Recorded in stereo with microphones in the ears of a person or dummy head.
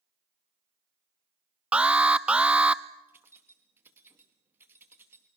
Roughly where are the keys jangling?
Centre.